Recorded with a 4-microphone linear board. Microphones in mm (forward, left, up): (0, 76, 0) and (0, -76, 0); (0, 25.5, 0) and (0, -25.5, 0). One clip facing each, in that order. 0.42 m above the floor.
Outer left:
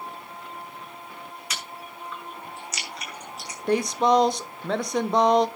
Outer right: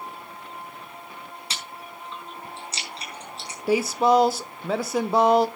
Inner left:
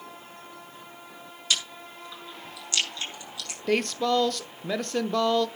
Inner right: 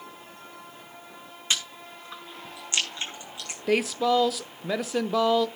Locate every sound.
1.5 s chewing: 30° right (ahead or behind), 5.5 m
3.7 s a woman speaking: 5° right (ahead or behind), 0.7 m